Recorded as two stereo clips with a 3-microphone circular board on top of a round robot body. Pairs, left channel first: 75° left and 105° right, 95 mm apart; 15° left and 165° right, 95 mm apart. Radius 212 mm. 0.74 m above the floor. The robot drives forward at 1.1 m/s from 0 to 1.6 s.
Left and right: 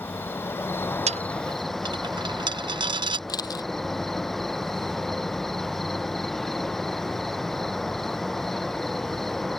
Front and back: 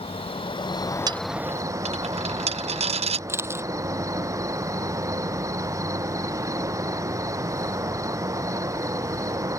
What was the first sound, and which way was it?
An insect, 5° left.